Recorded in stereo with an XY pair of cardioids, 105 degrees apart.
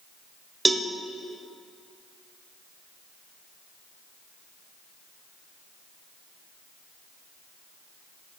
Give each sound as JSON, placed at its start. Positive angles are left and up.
{"t": 0.7, "sound": "a cowbell", "azimuth_deg": -20, "distance_m": 1.0}